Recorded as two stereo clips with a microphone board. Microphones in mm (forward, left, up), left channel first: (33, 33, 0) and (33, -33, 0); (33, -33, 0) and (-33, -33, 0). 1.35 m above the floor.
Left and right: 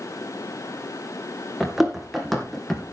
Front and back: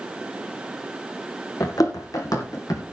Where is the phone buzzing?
No phone buzzing in this recording.